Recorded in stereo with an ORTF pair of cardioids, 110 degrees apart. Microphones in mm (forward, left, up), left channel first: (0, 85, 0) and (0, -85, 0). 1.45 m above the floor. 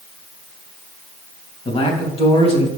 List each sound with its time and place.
1.6 s a man speaking: 35° left, 2.5 m